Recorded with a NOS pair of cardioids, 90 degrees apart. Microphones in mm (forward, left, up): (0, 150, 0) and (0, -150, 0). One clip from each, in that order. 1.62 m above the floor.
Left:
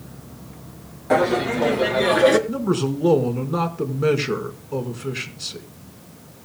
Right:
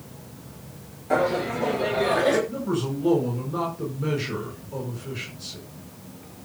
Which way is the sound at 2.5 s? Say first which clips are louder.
Left 5 dB; 60° left.